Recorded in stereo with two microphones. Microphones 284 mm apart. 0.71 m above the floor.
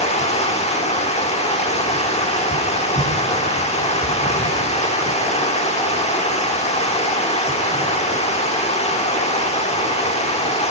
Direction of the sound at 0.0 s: 25° left (ahead or behind).